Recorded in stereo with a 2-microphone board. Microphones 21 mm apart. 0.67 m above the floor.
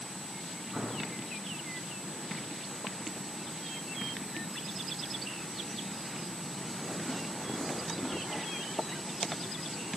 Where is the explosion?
65° right (ahead or behind), 1.9 m.